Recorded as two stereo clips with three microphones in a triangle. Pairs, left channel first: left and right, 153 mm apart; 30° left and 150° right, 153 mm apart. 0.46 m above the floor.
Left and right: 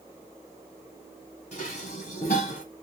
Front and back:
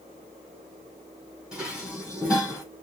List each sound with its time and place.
1.5 s dishes clattering: 125° left, 2.5 m